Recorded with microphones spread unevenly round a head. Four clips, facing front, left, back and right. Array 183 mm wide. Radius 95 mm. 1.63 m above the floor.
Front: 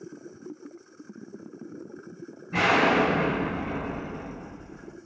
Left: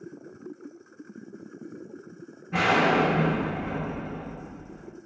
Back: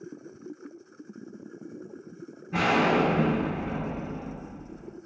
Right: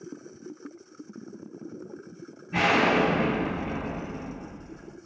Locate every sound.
2.5 s an explosion: 135° left, 1.0 m